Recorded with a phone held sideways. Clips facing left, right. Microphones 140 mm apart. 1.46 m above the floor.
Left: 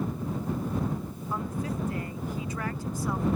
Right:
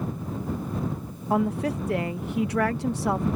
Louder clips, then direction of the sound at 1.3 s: Right 9 dB; 70° right (ahead or behind).